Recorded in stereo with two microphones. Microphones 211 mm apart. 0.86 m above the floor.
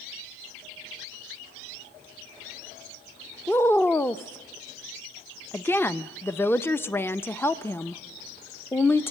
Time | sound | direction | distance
3.5 | a woman speaking | 10° left (ahead or behind) | 0.6 m